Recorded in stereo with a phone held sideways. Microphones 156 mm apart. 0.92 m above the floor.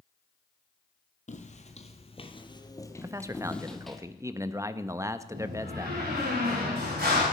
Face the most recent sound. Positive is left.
turn(degrees=-75)  # may be behind; listen again after turning